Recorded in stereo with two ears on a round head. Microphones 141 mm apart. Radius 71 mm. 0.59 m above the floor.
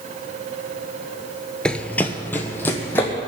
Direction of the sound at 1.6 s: 5° left (ahead or behind).